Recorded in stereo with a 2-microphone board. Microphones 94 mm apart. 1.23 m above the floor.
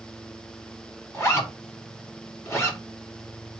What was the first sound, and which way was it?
A zipper, 30° left (ahead or behind).